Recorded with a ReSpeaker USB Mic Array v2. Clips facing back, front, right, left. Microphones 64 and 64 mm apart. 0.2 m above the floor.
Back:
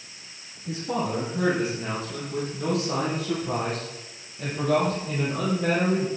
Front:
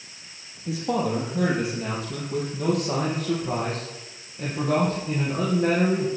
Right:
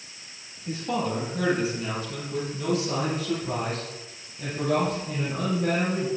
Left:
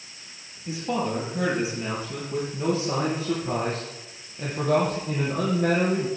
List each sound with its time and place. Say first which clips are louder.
0.7 s a man speaking: front 3 dB, left 1 dB; 10° left, 5 m; by 6.1 s 60° left, 7 m